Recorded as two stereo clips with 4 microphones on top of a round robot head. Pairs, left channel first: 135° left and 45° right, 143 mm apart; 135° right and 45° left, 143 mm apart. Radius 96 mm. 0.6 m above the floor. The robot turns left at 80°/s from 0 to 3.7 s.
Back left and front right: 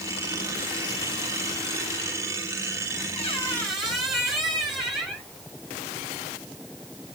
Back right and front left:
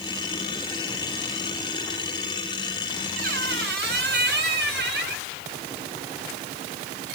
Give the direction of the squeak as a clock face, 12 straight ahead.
9 o'clock.